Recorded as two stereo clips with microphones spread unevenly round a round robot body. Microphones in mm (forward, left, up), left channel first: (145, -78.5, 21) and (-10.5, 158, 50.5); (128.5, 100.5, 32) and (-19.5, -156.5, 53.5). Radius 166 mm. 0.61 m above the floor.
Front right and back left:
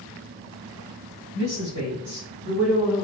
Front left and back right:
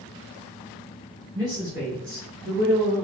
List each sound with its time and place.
1.3 s a woman speaking: 140° left, 1.7 m; by 3.0 s straight behind, 3 m